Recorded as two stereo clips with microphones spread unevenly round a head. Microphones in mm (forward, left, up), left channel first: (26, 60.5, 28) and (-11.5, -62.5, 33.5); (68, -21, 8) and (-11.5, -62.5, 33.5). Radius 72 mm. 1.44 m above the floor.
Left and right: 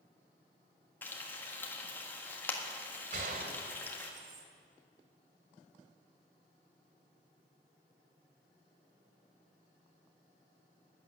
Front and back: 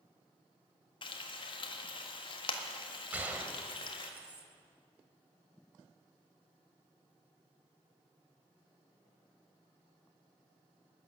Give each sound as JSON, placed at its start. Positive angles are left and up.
{"t": 1.0, "sound": "frying", "azimuth_deg": -5, "distance_m": 1.6}
{"t": 3.1, "sound": "a gunshot", "azimuth_deg": -100, "distance_m": 1.8}